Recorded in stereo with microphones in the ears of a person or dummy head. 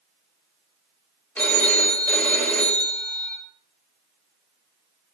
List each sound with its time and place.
1.4 s a phone ringing: 10° left (ahead or behind), 1.0 m